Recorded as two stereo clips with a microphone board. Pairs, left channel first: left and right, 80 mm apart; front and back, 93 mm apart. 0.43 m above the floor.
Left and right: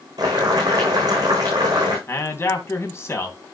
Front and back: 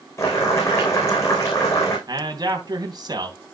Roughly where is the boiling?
Ahead right.